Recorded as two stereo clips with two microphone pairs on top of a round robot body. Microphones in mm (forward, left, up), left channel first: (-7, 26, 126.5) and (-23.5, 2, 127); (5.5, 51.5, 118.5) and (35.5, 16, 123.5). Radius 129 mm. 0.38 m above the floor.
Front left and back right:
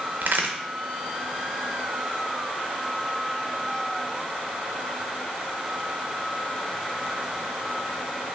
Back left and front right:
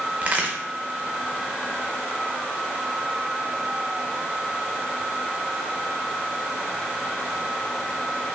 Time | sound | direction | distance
0.2 | a crack | 115° right | 0.5 m